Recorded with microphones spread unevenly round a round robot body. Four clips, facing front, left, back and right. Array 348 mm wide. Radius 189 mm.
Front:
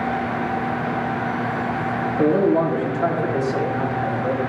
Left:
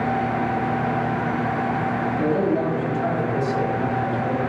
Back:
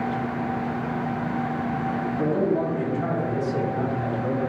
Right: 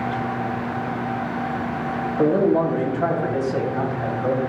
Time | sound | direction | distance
2.2 | a man speaking | 50° right | 3 m